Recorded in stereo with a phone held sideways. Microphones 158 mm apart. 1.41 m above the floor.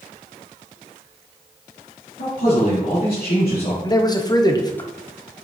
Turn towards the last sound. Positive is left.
turn(degrees=25)  # may be behind; listen again after turning